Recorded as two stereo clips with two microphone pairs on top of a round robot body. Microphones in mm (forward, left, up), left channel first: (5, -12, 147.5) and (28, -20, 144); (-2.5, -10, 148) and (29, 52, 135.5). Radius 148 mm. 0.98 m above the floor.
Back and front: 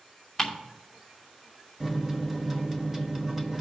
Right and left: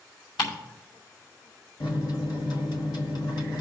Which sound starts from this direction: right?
A microwave, at 1.8 s.